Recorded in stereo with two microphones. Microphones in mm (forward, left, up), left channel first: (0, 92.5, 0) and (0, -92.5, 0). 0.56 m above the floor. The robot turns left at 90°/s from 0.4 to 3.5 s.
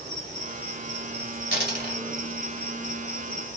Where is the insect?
40° right, 1.2 m; by 3.6 s 40° left, 1.2 m.